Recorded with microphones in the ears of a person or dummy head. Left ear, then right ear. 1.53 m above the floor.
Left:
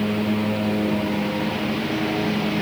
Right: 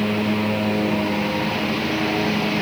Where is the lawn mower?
20° right (ahead or behind).